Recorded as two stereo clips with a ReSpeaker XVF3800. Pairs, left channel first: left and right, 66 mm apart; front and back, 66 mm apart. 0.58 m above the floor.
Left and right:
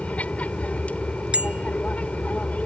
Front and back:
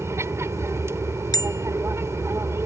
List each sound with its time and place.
0.0 s an aircraft: 150° left
1.3 s a bicycle bell: 20° right